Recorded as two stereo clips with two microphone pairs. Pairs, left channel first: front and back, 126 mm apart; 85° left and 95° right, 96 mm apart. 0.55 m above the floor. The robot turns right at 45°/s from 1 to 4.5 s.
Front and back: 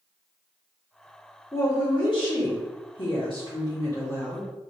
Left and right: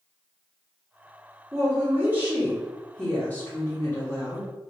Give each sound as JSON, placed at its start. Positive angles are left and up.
{"t": 1.5, "sound": "a woman speaking", "azimuth_deg": -55, "distance_m": 1.3}